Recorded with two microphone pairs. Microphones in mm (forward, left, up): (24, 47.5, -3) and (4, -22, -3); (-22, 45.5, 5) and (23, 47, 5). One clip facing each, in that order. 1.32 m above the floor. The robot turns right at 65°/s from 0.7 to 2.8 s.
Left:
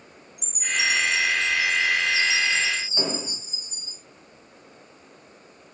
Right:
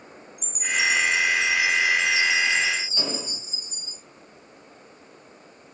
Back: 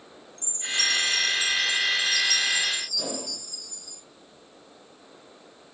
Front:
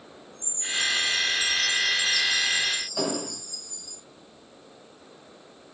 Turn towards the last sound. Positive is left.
turn(degrees=0)